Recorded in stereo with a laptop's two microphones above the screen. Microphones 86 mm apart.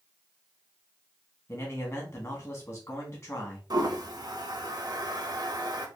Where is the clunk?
No clunk in this recording.